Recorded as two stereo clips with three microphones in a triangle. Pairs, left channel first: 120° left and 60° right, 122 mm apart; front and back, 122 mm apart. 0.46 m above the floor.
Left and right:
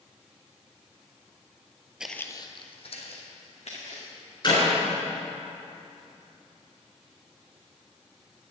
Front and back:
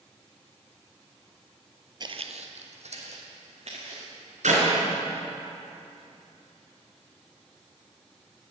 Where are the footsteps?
140° right, 0.6 m; by 4.1 s 145° left, 3 m.